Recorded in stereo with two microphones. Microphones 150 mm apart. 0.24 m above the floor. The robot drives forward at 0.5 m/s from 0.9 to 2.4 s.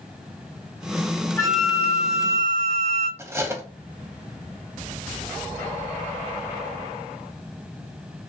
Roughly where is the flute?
Left.